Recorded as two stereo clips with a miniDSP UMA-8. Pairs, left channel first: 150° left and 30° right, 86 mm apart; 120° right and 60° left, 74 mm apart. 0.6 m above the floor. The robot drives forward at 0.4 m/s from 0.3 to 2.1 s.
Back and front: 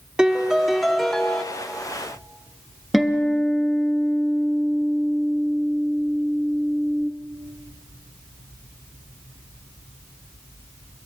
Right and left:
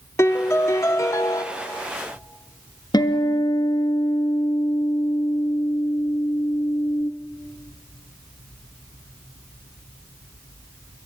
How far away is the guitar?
About 1.4 m.